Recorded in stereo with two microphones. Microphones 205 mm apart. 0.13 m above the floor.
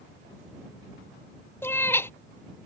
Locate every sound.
1.6 s a cat meowing: 10° left (ahead or behind)